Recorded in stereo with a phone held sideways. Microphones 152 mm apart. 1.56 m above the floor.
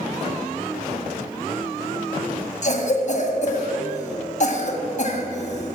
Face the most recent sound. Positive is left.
turn(degrees=50)  # may be behind; listen again after turning